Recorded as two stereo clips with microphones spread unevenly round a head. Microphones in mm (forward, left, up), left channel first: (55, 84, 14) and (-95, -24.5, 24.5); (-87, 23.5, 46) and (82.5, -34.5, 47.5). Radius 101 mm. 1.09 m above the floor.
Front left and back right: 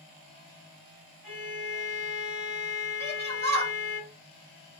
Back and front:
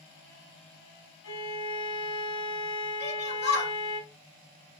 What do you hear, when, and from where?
1.2 s a violin: 160° left, 2.5 m
3.0 s a shout: 175° right, 2 m